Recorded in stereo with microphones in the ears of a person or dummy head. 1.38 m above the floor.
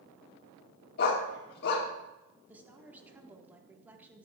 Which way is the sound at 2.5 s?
10° right (ahead or behind).